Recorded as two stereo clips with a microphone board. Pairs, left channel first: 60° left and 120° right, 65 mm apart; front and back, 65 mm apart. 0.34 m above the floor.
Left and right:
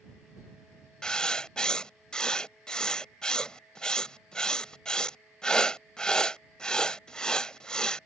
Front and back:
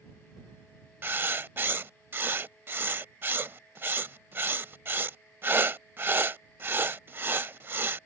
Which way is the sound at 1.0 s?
135° left.